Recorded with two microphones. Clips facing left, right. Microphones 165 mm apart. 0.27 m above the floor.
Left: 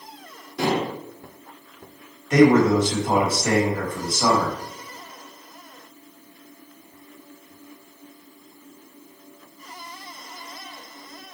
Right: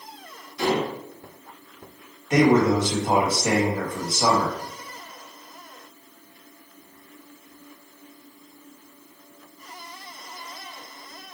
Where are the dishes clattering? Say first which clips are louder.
Even; 65° left (ahead or behind), 1.8 m.